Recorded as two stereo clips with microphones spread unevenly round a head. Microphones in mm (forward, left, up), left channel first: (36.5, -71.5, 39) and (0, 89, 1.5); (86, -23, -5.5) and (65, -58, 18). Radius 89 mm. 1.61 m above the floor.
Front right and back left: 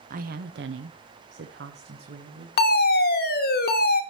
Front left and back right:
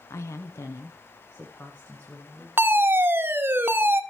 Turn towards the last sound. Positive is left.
turn(degrees=-70)